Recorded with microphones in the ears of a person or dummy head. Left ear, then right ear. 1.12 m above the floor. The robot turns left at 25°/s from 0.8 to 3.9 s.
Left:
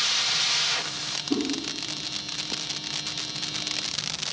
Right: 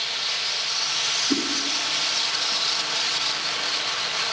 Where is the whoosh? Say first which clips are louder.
Right 4 dB; 60° right (ahead or behind), 0.9 m.